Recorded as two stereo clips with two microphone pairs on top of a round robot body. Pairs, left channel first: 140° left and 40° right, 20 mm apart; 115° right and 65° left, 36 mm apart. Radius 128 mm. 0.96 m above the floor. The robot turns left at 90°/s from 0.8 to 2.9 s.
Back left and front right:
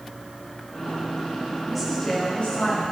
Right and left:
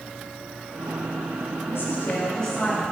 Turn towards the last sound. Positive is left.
turn(degrees=130)